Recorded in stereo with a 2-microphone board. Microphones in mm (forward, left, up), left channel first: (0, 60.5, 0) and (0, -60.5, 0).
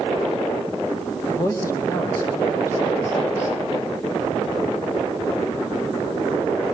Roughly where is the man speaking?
Left.